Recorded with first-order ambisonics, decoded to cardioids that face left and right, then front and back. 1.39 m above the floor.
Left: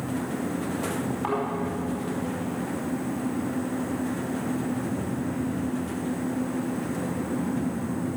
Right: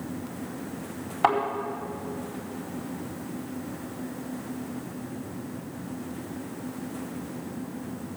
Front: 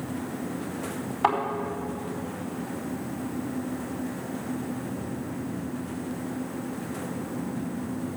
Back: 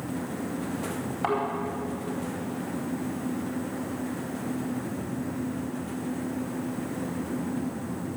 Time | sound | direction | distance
1.2 | a thud | 90° right | 4 m